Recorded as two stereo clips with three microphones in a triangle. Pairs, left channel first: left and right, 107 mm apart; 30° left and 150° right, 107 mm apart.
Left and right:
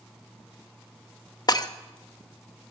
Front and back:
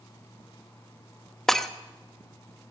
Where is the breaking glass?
115° left, 0.7 m.